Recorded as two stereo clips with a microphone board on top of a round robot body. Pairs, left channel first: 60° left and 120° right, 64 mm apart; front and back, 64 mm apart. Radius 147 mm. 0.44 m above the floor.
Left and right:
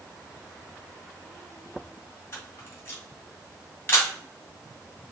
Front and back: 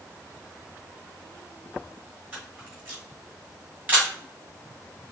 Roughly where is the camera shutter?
Behind left.